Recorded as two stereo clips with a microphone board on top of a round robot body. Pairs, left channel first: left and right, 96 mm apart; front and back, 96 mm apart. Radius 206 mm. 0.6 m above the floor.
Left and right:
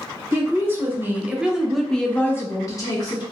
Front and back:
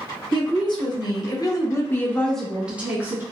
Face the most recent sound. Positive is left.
turn(degrees=120)